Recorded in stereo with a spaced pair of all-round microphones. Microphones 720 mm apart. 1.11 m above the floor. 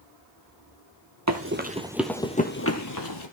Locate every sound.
1.3 s running footsteps: 25° right (ahead or behind), 1.2 m; by 3.3 s 35° left (ahead or behind), 1.3 m